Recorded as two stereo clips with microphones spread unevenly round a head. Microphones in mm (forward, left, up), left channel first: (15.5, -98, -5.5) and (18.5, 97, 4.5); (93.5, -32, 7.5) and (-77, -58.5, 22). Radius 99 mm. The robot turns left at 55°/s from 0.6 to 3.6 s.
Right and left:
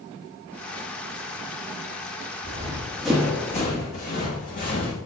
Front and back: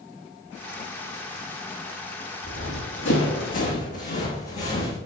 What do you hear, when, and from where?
2.4 s running footsteps: 40° left, 3 m; by 5.0 s 45° right, 3.5 m